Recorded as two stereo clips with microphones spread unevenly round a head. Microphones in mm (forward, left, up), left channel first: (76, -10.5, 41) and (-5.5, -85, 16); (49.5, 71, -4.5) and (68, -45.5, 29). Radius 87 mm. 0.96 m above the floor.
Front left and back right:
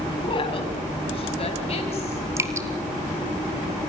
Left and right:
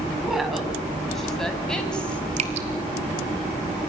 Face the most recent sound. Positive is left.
turn(degrees=-70)